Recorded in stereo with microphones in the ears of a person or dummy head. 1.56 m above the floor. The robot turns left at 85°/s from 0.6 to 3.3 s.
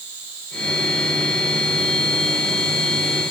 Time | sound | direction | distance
0.0 | an insect | 110° right | 4 m